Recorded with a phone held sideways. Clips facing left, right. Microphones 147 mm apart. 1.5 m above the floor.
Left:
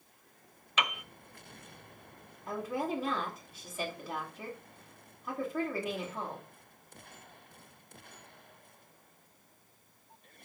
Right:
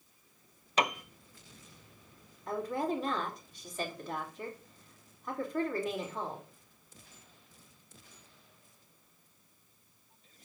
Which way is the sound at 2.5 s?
5° left (ahead or behind).